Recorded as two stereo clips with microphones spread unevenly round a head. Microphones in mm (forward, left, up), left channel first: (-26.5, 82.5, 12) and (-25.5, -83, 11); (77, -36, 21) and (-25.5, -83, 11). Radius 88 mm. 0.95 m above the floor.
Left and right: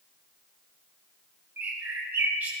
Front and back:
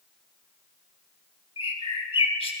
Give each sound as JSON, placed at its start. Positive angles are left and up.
{"t": 1.6, "sound": "a bird", "azimuth_deg": -10, "distance_m": 1.4}